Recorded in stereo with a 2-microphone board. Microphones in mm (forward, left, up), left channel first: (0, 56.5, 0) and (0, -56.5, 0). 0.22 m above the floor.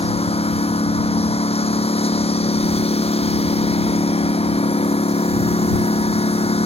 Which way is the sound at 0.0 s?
60° left (ahead or behind).